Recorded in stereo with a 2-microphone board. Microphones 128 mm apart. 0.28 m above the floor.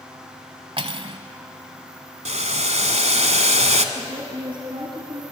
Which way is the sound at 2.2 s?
60° right (ahead or behind).